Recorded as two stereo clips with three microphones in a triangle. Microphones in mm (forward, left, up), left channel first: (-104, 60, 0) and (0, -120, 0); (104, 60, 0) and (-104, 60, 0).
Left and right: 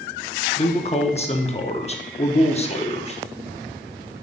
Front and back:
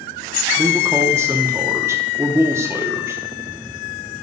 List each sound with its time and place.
0.6 s a man speaking: 115° left, 0.9 m